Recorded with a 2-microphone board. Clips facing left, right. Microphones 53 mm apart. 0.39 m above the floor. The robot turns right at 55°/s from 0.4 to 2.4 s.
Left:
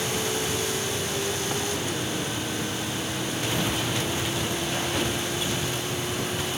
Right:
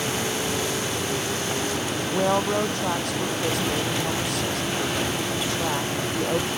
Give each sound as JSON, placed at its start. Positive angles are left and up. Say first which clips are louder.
{"t": 2.1, "sound": "a woman speaking", "louder": "right 8 dB", "side_deg": -85}